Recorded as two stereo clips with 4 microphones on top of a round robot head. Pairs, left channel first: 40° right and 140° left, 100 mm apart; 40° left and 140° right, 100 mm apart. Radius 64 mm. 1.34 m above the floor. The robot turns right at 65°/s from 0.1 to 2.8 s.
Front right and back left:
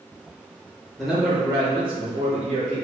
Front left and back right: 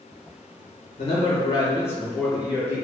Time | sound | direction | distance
1.0 | a man speaking | 45° left | 1.2 m